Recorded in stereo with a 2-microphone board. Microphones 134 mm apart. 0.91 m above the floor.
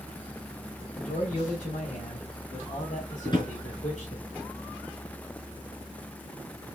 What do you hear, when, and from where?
1.0 s a man speaking: 65° left (ahead or behind), 5 m
3.2 s a drawer: 35° left (ahead or behind), 4.5 m